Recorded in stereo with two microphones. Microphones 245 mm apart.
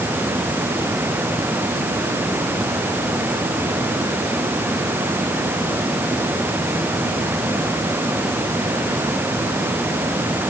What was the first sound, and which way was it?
Only background noise.